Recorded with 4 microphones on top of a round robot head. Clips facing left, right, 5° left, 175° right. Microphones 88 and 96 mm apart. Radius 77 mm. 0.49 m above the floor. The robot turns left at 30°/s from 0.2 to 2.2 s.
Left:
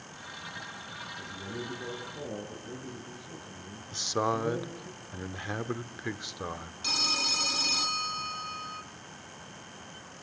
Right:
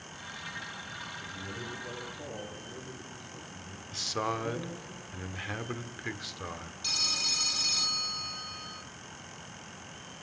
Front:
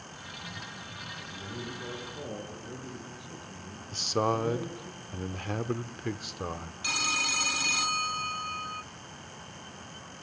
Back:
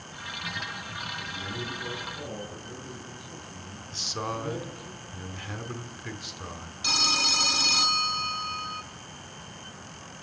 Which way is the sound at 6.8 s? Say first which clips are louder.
Left 8 dB, back 4 dB; 125° left.